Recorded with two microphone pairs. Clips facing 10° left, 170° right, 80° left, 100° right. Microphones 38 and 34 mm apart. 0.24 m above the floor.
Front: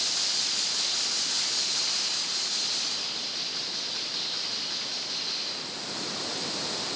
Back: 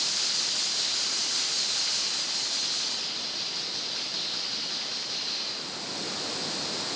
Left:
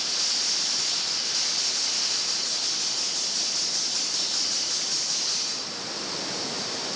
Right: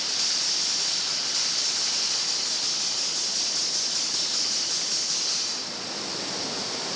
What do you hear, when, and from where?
Only background noise.